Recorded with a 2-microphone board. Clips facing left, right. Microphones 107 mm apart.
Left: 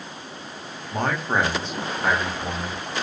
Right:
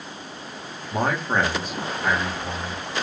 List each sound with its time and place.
0.9 s a man speaking: 15° right (ahead or behind), 0.7 m; by 2.8 s 65° left (ahead or behind), 1.3 m